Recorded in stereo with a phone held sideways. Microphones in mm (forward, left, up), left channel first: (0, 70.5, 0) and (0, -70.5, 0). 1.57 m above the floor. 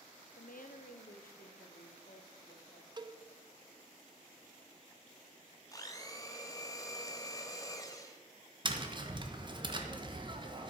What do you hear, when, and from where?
0.4 s a woman speaking: 80° left, 0.8 m; by 2.9 s 75° left (ahead or behind), 3 m
3.0 s a cowbell: 30° right (ahead or behind), 0.6 m
5.7 s a blender: 25° left (ahead or behind), 1.4 m
8.7 s tapping: 35° right (ahead or behind), 1.3 m